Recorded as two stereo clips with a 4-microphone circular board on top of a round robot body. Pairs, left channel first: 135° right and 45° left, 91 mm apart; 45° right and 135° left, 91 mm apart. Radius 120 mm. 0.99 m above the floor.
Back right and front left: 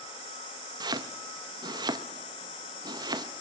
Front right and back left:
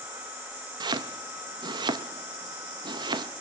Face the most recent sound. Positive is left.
turn(degrees=90)